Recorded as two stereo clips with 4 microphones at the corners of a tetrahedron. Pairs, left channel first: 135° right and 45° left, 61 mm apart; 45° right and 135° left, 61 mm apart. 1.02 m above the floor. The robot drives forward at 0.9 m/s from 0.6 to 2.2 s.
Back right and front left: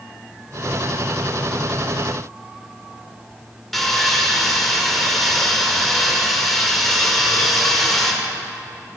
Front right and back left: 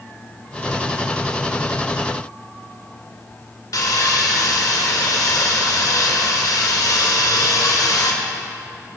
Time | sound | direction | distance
3.7 | sawing | 45° right | 1.6 m